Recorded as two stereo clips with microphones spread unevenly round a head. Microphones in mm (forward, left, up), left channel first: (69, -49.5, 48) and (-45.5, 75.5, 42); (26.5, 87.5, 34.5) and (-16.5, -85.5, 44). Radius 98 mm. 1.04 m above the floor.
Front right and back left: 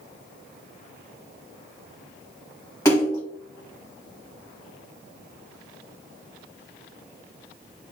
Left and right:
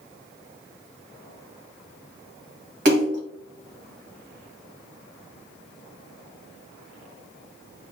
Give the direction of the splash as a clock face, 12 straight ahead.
4 o'clock.